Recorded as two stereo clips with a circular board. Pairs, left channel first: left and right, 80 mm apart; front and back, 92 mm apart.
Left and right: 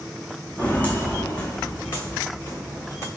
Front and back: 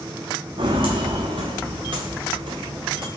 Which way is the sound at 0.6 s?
165° left.